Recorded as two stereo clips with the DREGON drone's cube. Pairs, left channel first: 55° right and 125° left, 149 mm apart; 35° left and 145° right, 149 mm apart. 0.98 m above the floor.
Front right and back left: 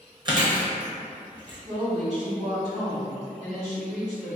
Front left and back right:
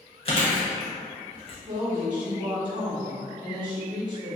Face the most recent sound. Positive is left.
turn(degrees=155)